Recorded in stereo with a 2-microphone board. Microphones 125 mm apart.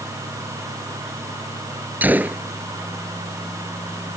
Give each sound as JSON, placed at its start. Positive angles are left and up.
{"t": 2.0, "sound": "a gunshot", "side_deg": -15}